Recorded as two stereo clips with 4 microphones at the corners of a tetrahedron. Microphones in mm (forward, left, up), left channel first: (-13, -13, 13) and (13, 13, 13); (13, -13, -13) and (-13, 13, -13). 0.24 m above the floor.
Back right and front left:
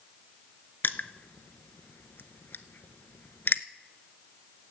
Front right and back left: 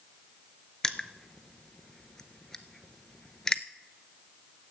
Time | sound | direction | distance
0.8 | crushing | 115° right | 0.5 m